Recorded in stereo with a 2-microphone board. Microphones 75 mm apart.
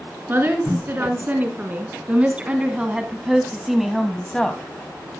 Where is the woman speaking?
30° right (ahead or behind), 4 m; by 4.6 s 10° left (ahead or behind), 2 m.